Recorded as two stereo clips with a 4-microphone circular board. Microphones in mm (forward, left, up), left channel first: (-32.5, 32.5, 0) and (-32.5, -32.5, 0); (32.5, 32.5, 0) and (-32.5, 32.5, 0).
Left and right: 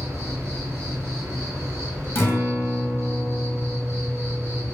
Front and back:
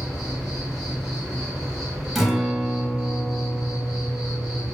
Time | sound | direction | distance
0.0 | an insect | 90° right | 1.1 m
2.1 | a guitar | 95° left | 0.6 m